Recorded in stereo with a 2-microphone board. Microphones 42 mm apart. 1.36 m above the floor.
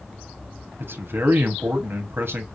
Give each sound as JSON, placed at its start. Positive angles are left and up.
{"t": 0.8, "sound": "a man speaking", "side_deg": -65, "distance_m": 1.0}